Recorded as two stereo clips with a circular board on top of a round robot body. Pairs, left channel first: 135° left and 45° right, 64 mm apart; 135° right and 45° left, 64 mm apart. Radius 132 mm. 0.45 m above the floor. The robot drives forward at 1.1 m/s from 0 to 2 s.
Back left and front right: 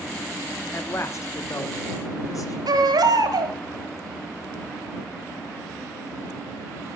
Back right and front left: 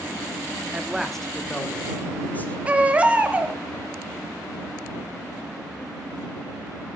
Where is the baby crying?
25° right, 1.0 m.